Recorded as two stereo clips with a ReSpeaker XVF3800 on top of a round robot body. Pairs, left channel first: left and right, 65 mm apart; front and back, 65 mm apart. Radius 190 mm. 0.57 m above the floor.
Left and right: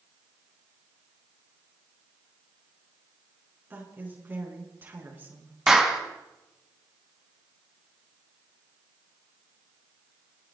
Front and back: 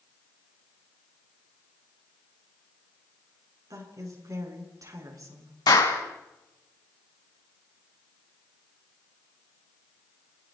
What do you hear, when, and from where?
3.7 s a woman speaking: 150° right, 8 m
5.7 s a clap: 5° right, 5 m